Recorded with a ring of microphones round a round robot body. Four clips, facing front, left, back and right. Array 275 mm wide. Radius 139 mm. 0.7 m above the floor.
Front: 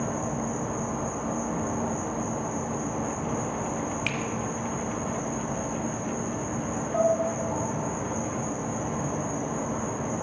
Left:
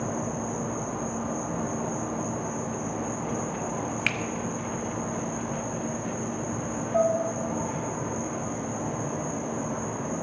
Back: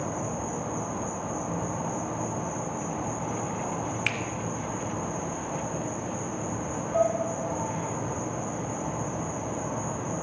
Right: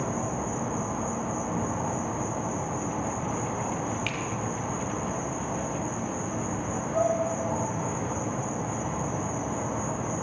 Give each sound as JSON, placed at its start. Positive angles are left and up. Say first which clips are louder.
{"t": 0.0, "sound": "an insect", "louder": "even, front 2 dB", "azimuth_deg": -65, "distance_m": 4.5}
{"t": 4.1, "sound": "a finger snap", "louder": "left 2 dB, front 1 dB", "azimuth_deg": 115, "distance_m": 1.1}
{"t": 6.9, "sound": "dishes clattering", "louder": "left 2 dB, front 1 dB", "azimuth_deg": 15, "distance_m": 1.8}